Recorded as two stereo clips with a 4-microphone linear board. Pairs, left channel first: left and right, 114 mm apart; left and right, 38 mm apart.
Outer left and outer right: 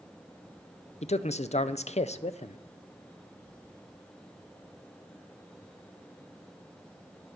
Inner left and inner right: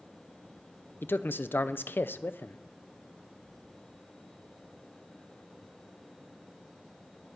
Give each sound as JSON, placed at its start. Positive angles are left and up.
{"t": 1.0, "sound": "a man speaking", "side_deg": 70, "distance_m": 0.5}